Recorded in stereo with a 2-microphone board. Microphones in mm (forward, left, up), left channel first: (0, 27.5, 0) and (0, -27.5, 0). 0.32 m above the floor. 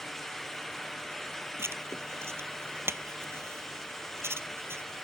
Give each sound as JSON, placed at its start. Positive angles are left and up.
{"t": 1.6, "sound": "writing", "side_deg": -55}